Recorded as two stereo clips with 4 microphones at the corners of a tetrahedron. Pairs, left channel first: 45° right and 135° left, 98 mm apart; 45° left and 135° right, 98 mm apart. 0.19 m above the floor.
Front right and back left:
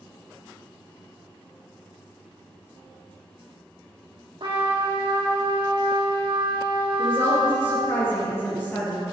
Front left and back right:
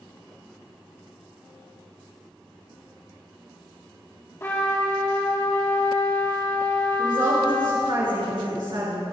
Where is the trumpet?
105° left, 4 m.